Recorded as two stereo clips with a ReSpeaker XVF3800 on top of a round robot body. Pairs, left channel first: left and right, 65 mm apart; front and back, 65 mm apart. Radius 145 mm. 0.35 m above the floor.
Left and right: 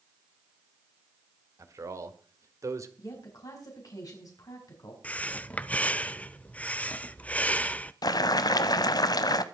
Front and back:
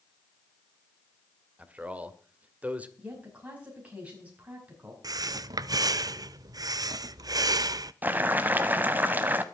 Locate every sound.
1.6 s a man speaking: 115° right, 2 m
3.0 s a woman speaking: 110° left, 4.5 m
5.0 s breathing: 160° left, 0.6 m
8.0 s boiling: 115° left, 0.7 m